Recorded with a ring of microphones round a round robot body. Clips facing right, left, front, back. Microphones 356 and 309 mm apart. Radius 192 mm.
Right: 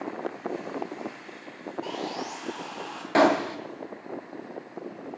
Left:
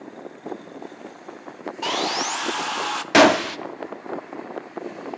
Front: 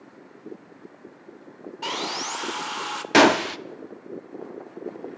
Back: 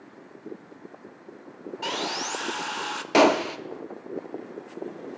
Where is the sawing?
85° left, 0.7 m.